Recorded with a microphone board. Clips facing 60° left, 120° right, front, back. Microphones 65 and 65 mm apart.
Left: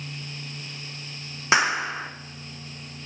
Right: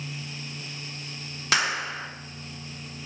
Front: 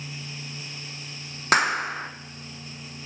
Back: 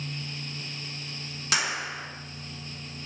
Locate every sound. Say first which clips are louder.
1.5 s a clap: left 4 dB, front 8 dB; 5° left, 1.4 m